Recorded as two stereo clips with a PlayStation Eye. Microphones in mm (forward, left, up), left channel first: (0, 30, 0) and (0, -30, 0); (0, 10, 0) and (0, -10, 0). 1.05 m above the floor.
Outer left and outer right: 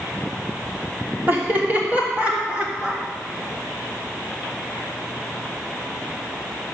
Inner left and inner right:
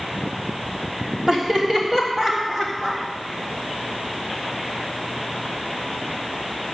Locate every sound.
1.3 s laughter: 35° right (ahead or behind), 3 m; by 3.0 s 20° right (ahead or behind), 4 m